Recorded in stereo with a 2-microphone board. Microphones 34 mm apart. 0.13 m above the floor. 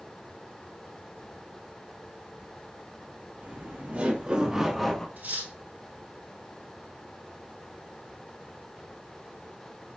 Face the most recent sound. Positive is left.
turn(degrees=-60)  # may be behind; listen again after turning